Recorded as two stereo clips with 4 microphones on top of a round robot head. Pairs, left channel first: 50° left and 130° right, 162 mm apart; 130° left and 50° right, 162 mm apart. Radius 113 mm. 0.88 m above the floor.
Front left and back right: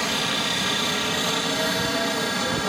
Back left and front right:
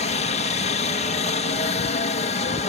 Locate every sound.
0.0 s a helicopter: 140° left; by 2.7 s 135° left